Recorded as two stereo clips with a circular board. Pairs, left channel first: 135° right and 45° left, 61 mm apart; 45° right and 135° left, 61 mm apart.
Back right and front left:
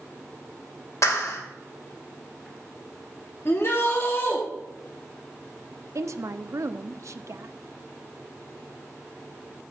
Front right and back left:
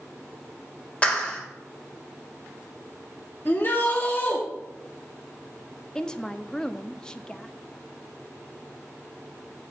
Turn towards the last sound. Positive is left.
turn(degrees=30)